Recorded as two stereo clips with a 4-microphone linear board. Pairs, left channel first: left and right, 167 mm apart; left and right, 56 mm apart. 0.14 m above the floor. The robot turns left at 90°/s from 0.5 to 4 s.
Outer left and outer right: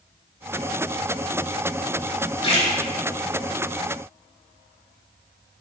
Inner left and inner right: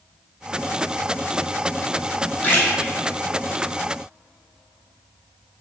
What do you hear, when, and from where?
2.4 s a splash: 30° left (ahead or behind), 1.1 m; by 2.7 s 40° left (ahead or behind), 1.1 m